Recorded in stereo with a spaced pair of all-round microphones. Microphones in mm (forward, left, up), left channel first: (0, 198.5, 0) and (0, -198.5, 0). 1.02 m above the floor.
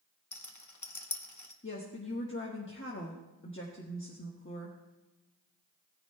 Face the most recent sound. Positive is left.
turn(degrees=30)  # may be behind; listen again after turning